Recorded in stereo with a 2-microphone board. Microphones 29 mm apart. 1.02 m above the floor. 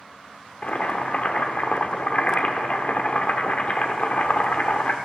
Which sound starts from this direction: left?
Boiling, at 0.6 s.